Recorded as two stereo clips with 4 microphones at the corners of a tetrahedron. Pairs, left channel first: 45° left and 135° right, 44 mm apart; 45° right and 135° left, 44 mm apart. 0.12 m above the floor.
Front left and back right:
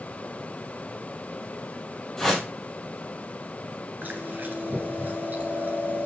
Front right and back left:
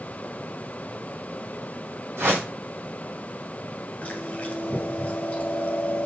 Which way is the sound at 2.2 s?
120° left.